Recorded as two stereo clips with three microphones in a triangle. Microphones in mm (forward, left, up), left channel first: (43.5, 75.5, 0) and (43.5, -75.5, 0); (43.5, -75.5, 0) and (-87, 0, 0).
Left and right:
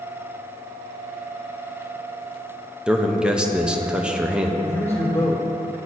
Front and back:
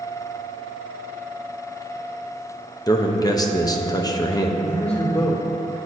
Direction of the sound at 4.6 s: 15° left.